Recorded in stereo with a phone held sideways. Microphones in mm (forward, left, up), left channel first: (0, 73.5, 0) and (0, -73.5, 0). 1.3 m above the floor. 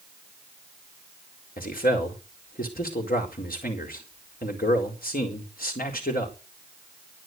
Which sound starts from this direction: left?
A man speaking, at 1.6 s.